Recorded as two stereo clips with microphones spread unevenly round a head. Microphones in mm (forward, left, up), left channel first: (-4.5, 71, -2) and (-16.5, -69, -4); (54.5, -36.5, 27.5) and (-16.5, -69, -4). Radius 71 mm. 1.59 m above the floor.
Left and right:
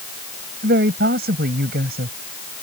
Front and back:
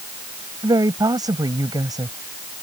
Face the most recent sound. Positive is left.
turn(degrees=-115)